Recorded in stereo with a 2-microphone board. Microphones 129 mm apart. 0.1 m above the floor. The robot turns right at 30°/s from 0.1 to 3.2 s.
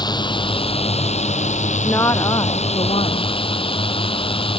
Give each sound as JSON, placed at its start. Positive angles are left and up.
{"t": 0.0, "sound": "a drone", "azimuth_deg": 35}
{"t": 1.8, "sound": "a woman speaking", "azimuth_deg": 20}